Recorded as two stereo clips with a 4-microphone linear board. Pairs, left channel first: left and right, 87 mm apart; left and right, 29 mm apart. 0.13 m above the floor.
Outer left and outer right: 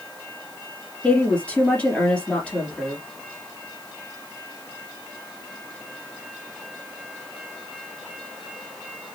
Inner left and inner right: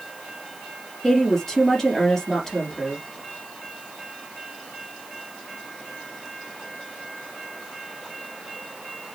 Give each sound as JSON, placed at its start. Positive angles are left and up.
{"t": 1.0, "sound": "a woman speaking", "side_deg": 15, "distance_m": 3.0}